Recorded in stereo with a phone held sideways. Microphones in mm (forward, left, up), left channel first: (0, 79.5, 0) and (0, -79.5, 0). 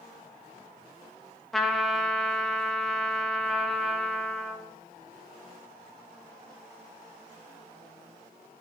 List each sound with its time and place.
1.5 s a trumpet: centre (ahead or behind), 1.9 m